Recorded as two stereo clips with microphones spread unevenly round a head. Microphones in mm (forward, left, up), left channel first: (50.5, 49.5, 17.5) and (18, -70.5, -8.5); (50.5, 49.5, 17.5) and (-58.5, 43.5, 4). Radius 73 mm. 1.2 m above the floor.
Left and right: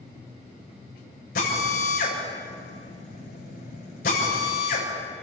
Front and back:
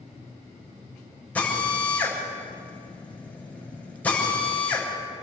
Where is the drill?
80° left, 7.5 m.